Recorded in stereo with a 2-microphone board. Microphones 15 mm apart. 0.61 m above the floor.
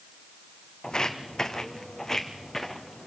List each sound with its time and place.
0.8 s footsteps: 55° left (ahead or behind), 1.7 m; by 3.1 s 15° left (ahead or behind), 2.5 m